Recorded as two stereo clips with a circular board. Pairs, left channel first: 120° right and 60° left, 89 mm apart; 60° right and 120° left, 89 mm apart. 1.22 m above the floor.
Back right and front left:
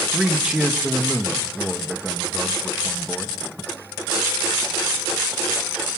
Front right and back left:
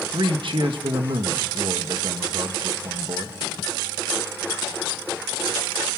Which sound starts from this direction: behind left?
A man speaking, at 0.1 s.